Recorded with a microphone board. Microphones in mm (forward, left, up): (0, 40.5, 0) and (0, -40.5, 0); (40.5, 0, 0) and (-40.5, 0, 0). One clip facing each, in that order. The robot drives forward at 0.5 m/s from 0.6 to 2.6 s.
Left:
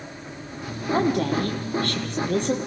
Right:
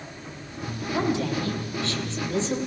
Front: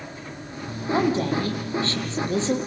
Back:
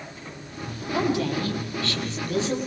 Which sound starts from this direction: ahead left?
A woman speaking, at 0.9 s.